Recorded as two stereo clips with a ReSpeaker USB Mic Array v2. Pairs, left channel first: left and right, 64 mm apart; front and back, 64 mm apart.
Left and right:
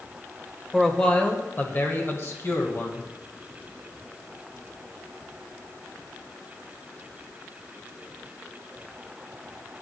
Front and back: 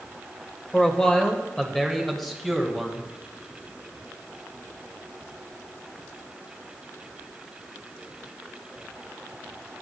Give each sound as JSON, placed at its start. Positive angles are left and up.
{"t": 0.7, "sound": "a man speaking", "azimuth_deg": 25, "distance_m": 1.2}